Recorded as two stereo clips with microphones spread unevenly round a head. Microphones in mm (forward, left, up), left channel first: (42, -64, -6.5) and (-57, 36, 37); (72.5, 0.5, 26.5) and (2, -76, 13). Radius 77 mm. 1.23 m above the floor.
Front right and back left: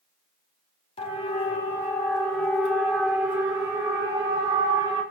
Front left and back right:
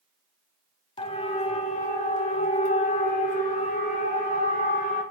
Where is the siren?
10° left, 4 m; by 5.0 s 65° left, 7.5 m.